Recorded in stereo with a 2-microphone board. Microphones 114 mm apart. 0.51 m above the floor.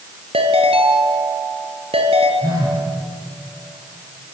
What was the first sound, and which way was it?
A ringtone, 60° right (ahead or behind).